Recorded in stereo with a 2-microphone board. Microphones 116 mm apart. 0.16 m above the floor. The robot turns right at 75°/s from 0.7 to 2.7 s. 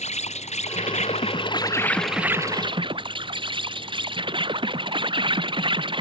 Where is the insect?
75° left; by 6.0 s 135° right.